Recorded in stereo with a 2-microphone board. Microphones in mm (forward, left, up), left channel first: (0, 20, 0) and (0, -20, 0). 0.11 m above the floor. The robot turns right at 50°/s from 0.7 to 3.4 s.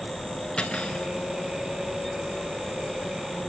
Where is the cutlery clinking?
25° left (ahead or behind), 0.8 m; by 1.1 s 30° left (ahead or behind), 0.8 m.